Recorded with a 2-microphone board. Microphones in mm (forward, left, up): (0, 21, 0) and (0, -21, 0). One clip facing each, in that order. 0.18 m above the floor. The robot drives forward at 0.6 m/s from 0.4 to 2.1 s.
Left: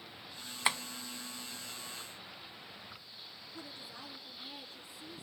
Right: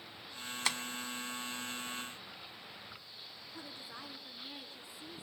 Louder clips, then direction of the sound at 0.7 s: Left 4 dB; 20° left (ahead or behind).